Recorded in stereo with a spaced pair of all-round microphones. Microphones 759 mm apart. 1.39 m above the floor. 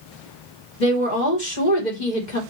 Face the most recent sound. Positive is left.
turn(degrees=70)  # may be behind; listen again after turning